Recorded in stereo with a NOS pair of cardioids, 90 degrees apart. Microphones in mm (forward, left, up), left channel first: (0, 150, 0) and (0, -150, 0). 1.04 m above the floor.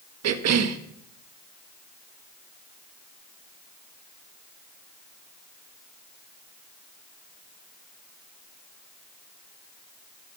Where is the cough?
60° right, 1.5 m.